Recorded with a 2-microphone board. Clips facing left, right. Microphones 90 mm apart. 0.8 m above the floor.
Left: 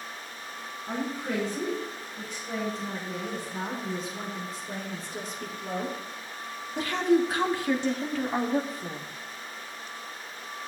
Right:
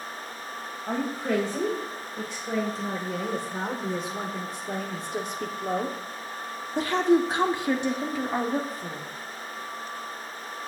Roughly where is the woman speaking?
Right.